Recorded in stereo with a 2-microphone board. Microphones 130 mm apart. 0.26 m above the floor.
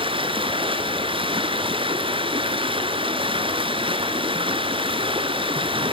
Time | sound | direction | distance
0.0 | running water | 45° right (ahead or behind) | 1.8 m